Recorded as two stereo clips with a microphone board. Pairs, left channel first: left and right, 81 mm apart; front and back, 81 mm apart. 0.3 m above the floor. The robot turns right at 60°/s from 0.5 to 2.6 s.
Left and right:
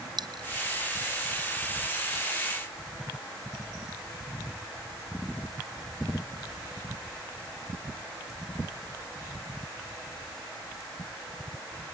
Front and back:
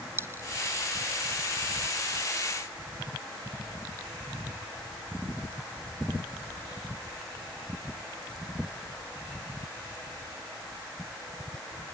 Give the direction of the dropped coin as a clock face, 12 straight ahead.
4 o'clock.